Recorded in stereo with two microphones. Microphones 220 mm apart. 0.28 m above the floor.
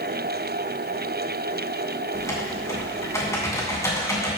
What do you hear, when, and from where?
2.1 s typing on a keyboard: 15° left (ahead or behind), 3 m